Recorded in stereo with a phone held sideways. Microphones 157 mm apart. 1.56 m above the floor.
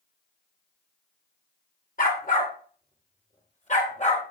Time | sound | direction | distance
2.0 | a dog barking | 60° left (ahead or behind) | 2.5 m